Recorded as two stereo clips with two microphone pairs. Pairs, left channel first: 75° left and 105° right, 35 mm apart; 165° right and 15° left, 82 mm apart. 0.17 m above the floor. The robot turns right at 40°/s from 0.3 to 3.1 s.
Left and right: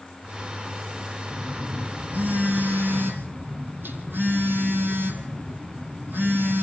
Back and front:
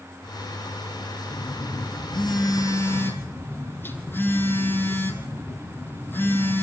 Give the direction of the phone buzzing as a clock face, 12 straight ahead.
6 o'clock.